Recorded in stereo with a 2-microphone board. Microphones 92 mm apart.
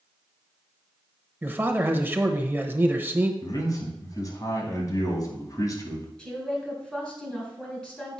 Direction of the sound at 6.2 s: 10° left (ahead or behind).